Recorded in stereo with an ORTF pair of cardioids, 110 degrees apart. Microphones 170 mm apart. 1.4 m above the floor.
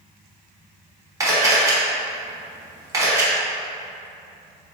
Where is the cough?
I don't hear a cough.